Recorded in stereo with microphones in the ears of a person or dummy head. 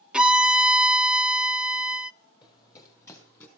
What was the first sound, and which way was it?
A violin, centre (ahead or behind).